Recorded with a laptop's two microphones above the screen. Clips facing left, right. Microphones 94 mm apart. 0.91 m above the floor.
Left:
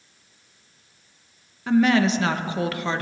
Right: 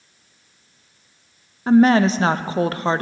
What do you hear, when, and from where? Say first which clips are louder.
1.7 s a woman speaking: right 5 dB; 35° right (ahead or behind), 0.5 m